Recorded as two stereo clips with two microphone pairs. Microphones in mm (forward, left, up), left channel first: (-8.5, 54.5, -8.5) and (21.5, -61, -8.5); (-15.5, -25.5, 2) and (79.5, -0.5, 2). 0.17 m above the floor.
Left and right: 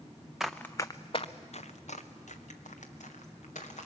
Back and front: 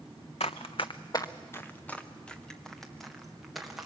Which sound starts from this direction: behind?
Running footsteps, at 0.4 s.